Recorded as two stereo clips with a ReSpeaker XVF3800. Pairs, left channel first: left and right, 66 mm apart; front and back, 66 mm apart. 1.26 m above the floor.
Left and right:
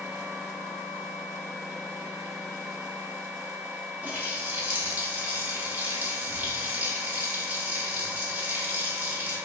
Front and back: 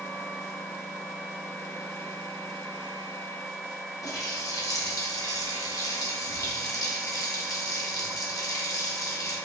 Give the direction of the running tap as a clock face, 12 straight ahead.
1 o'clock.